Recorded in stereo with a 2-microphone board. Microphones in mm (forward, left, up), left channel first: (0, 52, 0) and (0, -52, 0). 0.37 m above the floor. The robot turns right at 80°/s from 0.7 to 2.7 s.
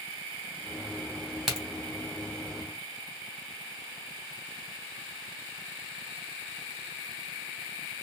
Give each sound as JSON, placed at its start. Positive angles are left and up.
{"t": 1.5, "sound": "a crack", "side_deg": 0, "distance_m": 2.0}